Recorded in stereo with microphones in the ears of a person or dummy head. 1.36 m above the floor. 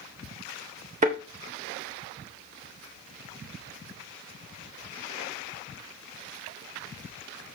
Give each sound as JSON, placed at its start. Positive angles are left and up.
{"t": 1.0, "sound": "a thud", "side_deg": -40, "distance_m": 1.4}